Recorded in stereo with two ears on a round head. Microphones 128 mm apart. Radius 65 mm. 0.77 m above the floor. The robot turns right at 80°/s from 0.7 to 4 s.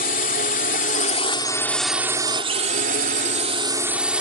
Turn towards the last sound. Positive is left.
turn(degrees=-10)